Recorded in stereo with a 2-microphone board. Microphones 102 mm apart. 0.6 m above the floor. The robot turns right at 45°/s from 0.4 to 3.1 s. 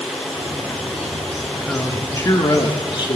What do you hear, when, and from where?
1.7 s a man speaking: 15° left, 1.3 m; by 3.2 s 80° left, 1.3 m